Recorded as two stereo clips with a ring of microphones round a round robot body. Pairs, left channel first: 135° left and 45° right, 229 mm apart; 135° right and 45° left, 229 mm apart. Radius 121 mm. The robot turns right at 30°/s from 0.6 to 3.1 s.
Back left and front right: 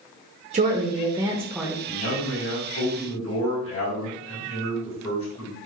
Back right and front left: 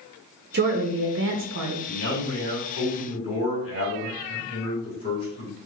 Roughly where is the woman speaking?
Ahead.